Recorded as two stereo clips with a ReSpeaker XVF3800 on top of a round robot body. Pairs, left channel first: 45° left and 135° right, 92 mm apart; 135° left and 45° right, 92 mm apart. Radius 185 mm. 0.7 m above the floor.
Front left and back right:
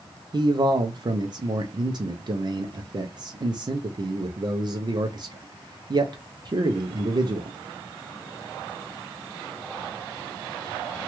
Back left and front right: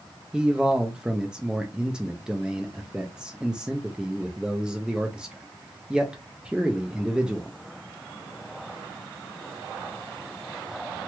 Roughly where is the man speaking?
Behind right.